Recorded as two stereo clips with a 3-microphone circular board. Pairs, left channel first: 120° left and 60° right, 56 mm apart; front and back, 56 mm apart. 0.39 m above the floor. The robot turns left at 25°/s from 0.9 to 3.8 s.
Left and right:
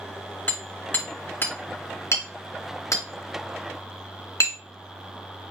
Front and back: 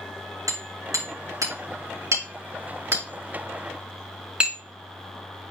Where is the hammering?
Straight behind, 4.5 m; by 4.6 s 110° left, 4.5 m.